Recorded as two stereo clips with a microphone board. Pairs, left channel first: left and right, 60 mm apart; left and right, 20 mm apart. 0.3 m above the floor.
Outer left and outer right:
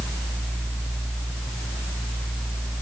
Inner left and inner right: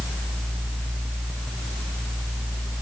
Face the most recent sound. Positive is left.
No sound to turn to.